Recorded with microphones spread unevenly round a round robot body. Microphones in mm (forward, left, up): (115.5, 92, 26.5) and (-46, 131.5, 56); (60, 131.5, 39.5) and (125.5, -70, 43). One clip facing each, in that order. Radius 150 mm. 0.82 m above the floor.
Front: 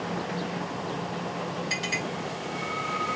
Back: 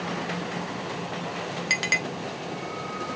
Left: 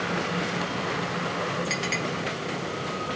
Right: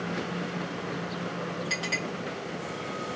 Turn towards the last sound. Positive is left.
turn(degrees=-175)